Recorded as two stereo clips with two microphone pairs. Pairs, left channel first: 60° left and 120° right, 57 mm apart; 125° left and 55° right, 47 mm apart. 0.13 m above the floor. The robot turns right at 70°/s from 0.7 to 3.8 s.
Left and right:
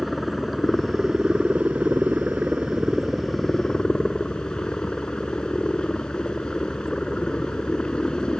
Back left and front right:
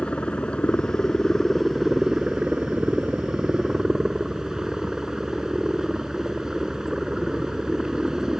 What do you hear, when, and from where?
0.0 s a helicopter: 150° left; by 8.4 s 5° left